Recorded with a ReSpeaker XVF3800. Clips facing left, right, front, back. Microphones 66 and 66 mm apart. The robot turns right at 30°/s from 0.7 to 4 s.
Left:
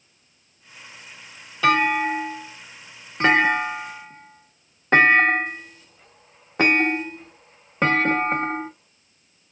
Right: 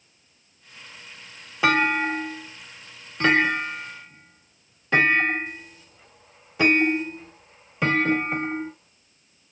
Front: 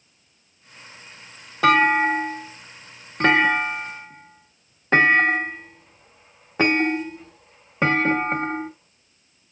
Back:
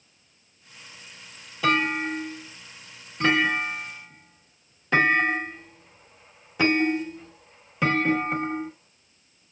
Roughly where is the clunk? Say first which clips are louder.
Left 2 dB, front 7 dB; ahead right.